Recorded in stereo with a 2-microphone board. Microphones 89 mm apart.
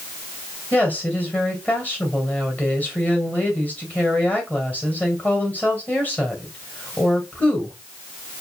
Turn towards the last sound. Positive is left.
turn(degrees=20)  # may be behind; listen again after turning